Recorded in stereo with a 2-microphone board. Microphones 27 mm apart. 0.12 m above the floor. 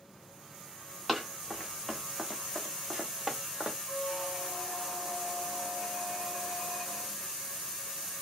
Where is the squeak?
5° left (ahead or behind), 0.8 m.